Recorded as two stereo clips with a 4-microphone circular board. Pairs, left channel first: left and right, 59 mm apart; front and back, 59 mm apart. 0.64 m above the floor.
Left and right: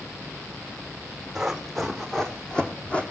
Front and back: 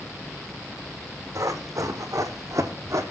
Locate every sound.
1.4 s running footsteps: 175° right, 1.9 m; by 3.0 s 155° left, 1.7 m